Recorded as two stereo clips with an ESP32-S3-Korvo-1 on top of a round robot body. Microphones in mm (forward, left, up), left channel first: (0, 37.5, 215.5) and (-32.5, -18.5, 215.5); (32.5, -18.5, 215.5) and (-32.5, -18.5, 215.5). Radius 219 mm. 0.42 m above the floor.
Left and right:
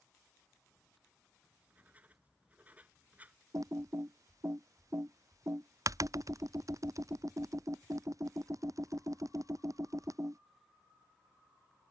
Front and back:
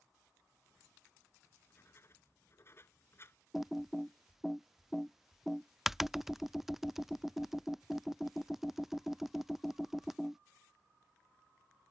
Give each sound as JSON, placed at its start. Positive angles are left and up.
{"t": 1.4, "sound": "writing", "azimuth_deg": -50}
{"t": 3.5, "sound": "typing on a keyboard", "azimuth_deg": -95}